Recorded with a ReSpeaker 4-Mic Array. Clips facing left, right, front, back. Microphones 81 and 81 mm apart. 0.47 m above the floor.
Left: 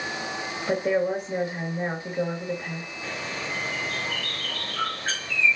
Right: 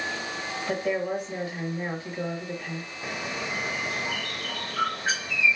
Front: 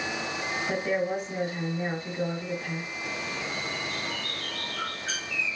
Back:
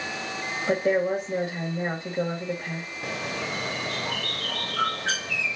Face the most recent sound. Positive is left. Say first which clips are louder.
# right 1 dB, back 6 dB
turn(degrees=-165)